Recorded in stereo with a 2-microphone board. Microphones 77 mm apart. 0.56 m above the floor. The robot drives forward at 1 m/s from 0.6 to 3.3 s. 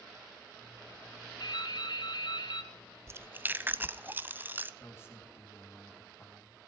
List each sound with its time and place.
1.4 s dripping: 65° left (ahead or behind), 2.5 m
3.1 s chewing: 35° right (ahead or behind), 0.5 m; by 4.7 s 25° right (ahead or behind), 0.7 m
4.8 s a man speaking: 30° left (ahead or behind), 4.5 m